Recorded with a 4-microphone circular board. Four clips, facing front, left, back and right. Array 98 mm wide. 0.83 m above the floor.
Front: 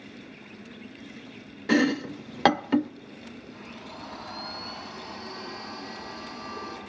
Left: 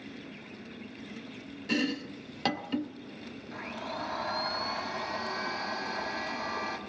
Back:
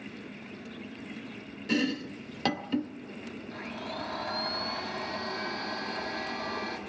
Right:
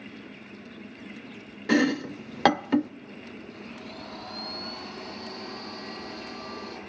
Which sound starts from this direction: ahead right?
Chopping, at 1.7 s.